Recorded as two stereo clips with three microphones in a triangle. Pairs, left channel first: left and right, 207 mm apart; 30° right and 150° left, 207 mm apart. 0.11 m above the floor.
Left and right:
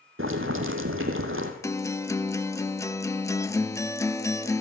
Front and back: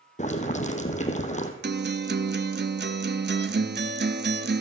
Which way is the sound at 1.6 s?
160° left.